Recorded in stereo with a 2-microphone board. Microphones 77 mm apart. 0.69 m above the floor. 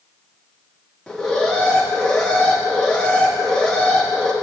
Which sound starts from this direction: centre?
An alarm, at 1.1 s.